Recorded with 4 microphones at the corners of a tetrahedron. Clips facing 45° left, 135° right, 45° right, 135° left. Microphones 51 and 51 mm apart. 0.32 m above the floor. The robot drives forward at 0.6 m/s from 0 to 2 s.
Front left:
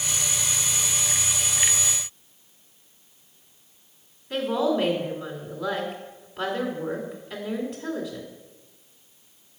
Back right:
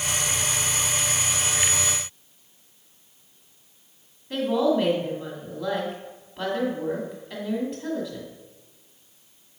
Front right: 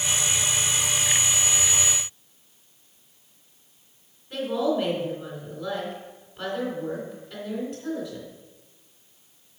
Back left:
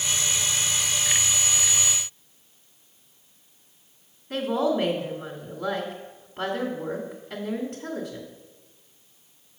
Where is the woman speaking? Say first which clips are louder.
Back right 2 dB, back left 1 dB; 135° left, 1.9 m.